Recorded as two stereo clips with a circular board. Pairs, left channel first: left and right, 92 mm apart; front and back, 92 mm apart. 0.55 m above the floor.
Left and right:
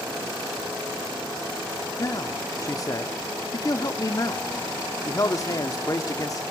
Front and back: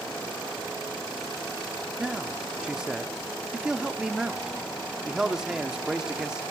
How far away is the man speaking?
About 1.0 m.